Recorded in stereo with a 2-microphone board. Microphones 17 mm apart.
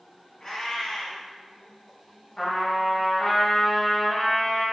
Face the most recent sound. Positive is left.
turn(degrees=30)  # may be behind; listen again after turning